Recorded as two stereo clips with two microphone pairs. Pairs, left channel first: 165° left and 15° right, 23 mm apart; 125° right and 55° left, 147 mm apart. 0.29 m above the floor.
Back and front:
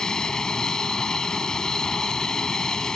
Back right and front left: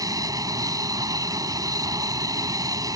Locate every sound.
0.0 s an aircraft: 115° left